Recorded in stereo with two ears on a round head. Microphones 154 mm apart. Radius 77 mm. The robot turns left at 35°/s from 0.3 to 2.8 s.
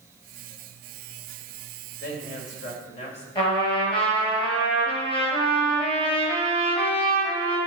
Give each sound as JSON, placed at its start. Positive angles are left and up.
{"t": 2.0, "sound": "a man speaking", "side_deg": 65, "distance_m": 3.0}
{"t": 3.4, "sound": "a trumpet", "side_deg": 35, "distance_m": 4.5}